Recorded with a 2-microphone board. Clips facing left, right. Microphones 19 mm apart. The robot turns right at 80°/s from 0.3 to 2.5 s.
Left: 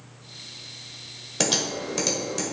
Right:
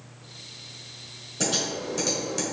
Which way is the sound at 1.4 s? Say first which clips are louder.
Left 2 dB; 70° left (ahead or behind).